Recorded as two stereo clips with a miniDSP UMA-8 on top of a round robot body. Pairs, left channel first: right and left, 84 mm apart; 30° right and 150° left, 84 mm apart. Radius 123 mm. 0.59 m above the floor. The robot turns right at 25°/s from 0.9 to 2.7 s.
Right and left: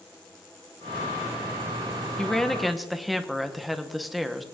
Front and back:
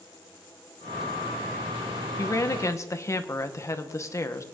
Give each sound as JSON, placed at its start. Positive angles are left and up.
{"t": 2.2, "sound": "a woman speaking", "azimuth_deg": -15, "distance_m": 1.1}